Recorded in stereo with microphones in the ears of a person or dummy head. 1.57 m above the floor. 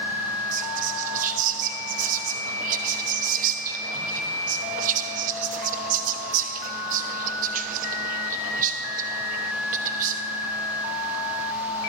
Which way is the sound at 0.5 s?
40° right (ahead or behind).